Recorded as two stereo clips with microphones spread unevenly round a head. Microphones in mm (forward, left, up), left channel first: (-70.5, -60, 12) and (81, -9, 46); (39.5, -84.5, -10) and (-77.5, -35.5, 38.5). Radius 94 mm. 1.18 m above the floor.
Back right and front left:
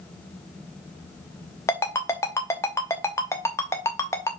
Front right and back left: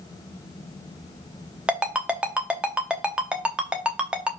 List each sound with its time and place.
1.7 s a ringtone: 115° left, 0.7 m